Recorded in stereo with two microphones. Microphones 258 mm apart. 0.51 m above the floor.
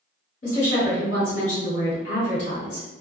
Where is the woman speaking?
50° left (ahead or behind), 1.8 m.